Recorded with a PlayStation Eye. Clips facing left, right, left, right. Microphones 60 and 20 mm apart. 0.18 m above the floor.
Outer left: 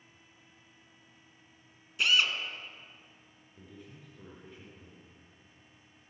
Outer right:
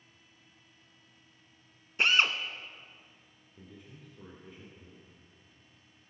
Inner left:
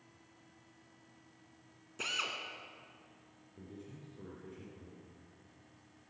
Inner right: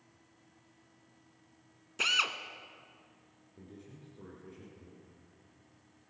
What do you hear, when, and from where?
2.0 s a drill: 40° right (ahead or behind), 0.9 m
3.6 s a man speaking: 5° right (ahead or behind), 2.5 m